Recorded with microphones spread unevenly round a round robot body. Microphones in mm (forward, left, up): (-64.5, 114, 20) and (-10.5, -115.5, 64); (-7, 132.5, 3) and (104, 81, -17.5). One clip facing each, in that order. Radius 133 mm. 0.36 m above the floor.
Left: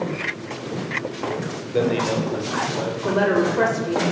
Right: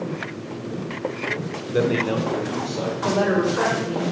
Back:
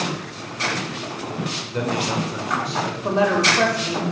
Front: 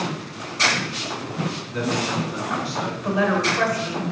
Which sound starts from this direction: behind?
A man speaking, at 1.7 s.